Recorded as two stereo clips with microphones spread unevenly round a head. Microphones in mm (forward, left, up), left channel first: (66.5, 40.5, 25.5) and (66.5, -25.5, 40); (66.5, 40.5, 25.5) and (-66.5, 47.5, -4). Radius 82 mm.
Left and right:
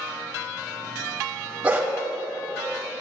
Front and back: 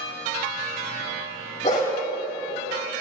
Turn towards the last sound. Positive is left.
turn(degrees=-50)